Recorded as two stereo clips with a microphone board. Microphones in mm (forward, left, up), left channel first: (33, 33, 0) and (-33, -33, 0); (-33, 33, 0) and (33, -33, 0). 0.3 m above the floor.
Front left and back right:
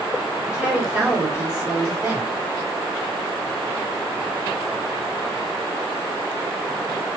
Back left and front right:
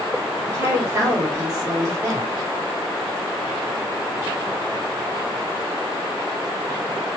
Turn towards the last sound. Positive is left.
turn(degrees=-65)